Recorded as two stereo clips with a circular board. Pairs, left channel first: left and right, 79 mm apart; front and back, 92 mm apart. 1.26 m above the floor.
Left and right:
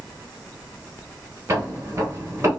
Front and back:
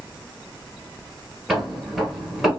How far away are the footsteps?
About 1.4 m.